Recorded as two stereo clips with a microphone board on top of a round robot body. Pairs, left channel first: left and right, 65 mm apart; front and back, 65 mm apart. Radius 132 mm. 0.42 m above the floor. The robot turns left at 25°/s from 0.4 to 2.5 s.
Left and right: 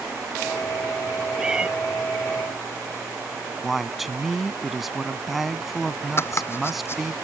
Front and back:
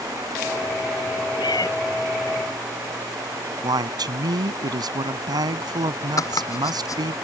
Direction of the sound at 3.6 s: Straight behind.